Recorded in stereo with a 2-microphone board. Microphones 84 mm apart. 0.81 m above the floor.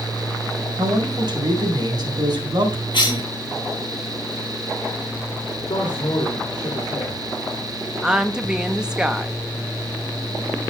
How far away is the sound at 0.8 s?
About 4 m.